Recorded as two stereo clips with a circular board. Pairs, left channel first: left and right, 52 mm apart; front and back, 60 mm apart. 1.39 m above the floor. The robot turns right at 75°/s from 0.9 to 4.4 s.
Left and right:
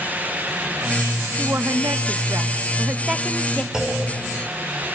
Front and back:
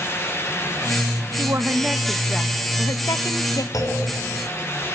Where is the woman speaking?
145° right, 1.3 m; by 3.6 s 25° left, 1.3 m.